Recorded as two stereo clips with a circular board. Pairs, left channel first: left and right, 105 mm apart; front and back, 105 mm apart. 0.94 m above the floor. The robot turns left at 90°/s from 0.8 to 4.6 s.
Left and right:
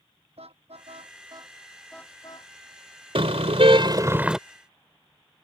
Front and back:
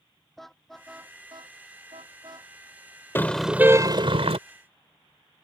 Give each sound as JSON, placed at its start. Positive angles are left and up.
{"t": 0.4, "sound": "a car horn", "azimuth_deg": -85}
{"t": 3.1, "sound": "a car horn", "azimuth_deg": -65}